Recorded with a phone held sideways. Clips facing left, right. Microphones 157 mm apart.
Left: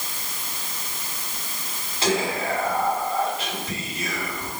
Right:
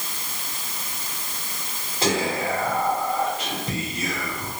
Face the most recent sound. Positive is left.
turn(degrees=-40)  # may be behind; listen again after turning